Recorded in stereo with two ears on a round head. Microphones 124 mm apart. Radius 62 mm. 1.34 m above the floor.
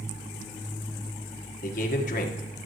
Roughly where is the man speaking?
Left.